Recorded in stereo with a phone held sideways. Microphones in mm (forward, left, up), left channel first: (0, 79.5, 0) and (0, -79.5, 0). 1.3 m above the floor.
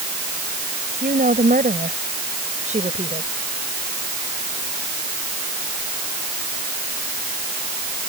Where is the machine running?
I don't hear a machine running.